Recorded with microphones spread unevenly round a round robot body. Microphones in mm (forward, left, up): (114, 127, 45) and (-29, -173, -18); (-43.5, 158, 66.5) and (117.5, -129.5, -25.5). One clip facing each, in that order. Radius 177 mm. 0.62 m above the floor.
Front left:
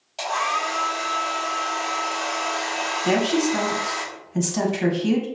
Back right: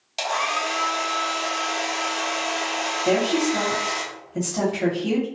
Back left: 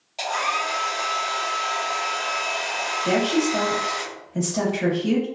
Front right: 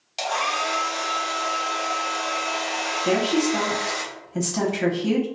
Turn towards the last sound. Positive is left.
turn(degrees=-10)